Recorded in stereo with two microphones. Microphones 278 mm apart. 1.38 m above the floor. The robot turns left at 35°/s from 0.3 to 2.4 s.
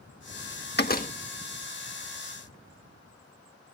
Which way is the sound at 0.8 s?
35° left (ahead or behind).